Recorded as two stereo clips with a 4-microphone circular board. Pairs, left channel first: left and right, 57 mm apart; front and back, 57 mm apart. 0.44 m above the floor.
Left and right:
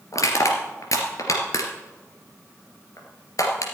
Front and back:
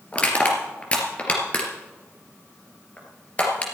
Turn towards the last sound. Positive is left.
turn(degrees=65)